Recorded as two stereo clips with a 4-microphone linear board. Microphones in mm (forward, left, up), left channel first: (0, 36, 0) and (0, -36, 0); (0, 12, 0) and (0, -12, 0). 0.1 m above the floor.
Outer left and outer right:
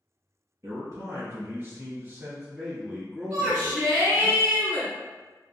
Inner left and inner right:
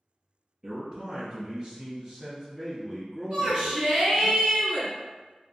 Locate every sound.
0.6 s a man speaking: 50° right (ahead or behind), 1.8 m; by 4.3 s 20° left (ahead or behind), 1.5 m
3.3 s a shout: 15° right (ahead or behind), 1.8 m